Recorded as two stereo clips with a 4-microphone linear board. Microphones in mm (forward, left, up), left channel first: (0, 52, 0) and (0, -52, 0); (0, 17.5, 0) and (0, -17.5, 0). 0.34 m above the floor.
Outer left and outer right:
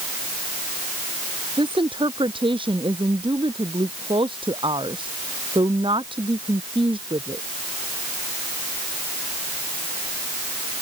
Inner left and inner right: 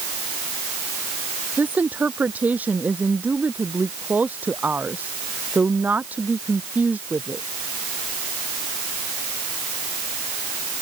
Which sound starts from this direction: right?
A woman speaking, at 1.6 s.